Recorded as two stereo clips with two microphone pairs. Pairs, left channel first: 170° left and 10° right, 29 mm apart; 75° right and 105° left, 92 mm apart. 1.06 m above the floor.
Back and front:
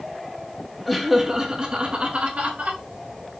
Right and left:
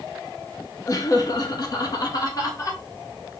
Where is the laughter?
105° right, 0.9 m; by 2.8 s 30° right, 1.6 m.